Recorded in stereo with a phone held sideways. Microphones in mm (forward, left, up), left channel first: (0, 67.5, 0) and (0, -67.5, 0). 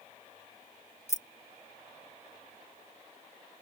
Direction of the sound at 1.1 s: 55° left (ahead or behind).